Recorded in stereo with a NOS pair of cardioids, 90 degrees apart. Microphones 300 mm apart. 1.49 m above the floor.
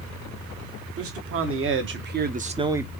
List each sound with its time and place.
1.0 s a man speaking: 50° right, 1.4 m; by 2.9 s straight ahead, 0.5 m